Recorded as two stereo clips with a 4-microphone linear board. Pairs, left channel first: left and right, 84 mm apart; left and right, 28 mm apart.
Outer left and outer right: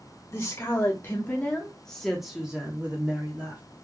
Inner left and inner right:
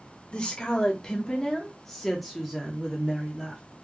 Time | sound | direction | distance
0.3 | a woman speaking | 35° left (ahead or behind) | 1.3 m